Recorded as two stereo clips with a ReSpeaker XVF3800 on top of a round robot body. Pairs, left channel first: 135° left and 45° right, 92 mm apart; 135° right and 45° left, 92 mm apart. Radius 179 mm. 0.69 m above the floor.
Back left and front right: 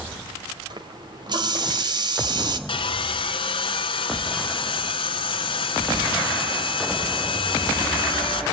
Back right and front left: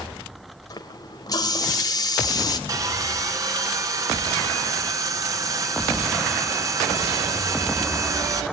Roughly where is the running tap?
Right.